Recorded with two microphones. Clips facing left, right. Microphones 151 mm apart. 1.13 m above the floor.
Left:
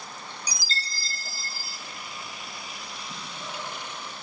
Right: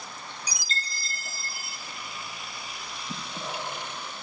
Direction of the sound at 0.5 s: 35° left (ahead or behind).